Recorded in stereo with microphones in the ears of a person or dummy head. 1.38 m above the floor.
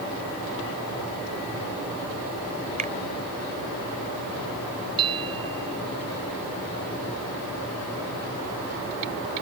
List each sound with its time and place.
2.8 s a finger snap: 40° right (ahead or behind)
5.0 s a bell: 25° right (ahead or behind)